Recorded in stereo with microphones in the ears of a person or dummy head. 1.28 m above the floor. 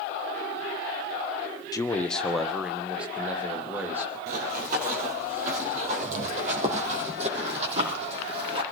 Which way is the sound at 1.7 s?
20° left (ahead or behind).